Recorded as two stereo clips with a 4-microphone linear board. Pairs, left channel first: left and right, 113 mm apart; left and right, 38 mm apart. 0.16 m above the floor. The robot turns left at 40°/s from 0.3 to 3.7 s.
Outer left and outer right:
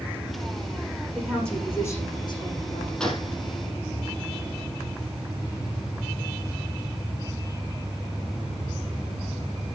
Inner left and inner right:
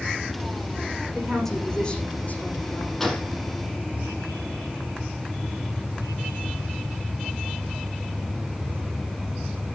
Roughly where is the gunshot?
Centre.